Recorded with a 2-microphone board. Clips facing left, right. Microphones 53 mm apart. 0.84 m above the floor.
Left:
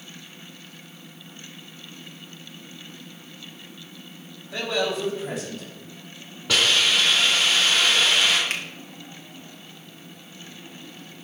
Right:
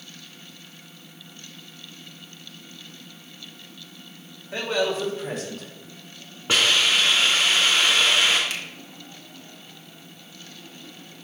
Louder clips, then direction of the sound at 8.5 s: Left 3 dB; 45° left (ahead or behind).